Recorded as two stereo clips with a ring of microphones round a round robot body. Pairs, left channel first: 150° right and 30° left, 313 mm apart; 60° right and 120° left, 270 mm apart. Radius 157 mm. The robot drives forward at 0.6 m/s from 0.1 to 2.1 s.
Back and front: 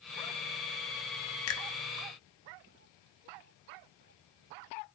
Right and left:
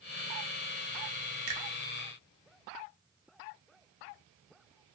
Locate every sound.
1.5 s a finger snap: 160° left, 0.6 m; by 1.7 s 165° left, 0.7 m